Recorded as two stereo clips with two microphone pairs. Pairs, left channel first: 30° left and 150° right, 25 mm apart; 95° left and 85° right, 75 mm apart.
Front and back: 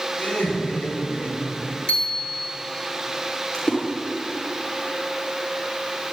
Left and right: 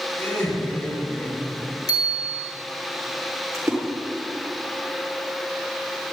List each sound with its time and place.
0.2 s laughter: 40° left, 7 m; by 1.7 s 20° left, 5.5 m
1.9 s a bicycle bell: 65° left, 4 m
3.5 s a splash: 35° right, 7 m